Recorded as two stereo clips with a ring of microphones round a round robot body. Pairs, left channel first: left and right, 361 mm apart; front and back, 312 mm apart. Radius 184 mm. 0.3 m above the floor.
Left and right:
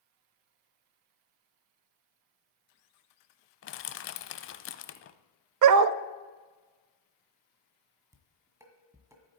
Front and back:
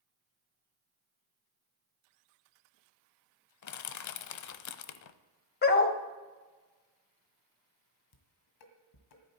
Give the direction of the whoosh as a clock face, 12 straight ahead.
No whoosh in this recording.